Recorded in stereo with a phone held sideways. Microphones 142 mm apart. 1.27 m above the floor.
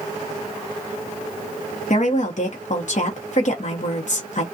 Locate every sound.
1.9 s a woman speaking: 60° left (ahead or behind), 0.9 m